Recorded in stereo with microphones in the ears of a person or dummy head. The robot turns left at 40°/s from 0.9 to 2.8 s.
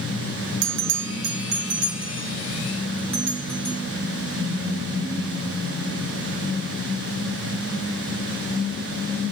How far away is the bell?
About 0.9 m.